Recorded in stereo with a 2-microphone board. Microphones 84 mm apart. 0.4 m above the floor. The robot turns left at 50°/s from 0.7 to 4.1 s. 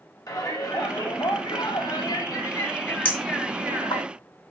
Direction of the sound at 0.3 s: 125° left.